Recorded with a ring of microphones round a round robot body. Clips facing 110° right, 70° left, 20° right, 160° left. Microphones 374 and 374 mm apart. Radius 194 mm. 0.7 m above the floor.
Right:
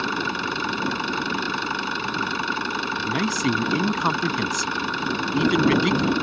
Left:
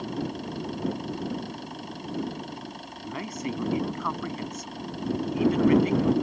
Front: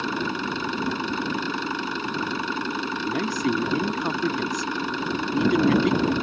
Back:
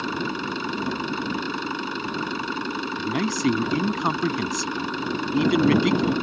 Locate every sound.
0.0 s an engine running: 110° right
3.0 s a man speaking: 140° right